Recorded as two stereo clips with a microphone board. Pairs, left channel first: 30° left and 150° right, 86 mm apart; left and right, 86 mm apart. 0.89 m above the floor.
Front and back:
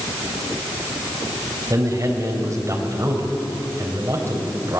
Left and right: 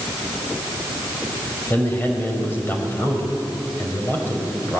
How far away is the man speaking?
About 4.5 m.